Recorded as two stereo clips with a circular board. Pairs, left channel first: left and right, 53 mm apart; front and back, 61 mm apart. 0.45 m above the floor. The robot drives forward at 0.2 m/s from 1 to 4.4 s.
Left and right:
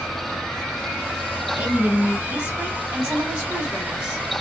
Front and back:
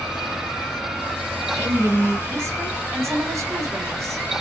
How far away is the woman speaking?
About 1.3 m.